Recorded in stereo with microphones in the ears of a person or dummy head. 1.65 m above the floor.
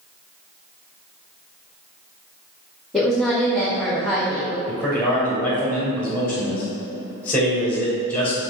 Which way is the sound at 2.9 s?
5° left (ahead or behind).